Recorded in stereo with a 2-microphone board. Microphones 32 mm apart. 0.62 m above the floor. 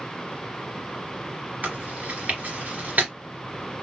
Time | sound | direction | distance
1.6 | chewing | 60° right (ahead or behind) | 2.5 m